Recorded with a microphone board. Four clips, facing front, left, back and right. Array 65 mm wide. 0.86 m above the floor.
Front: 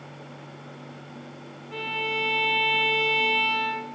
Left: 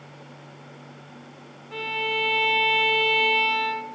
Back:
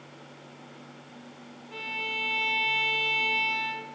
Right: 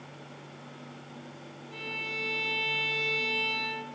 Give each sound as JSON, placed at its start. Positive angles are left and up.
{"t": 1.7, "sound": "a violin", "azimuth_deg": 60, "distance_m": 1.0}